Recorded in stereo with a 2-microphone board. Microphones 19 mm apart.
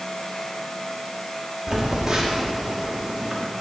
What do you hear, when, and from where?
1.7 s a phone buzzing: 40° right (ahead or behind), 0.9 m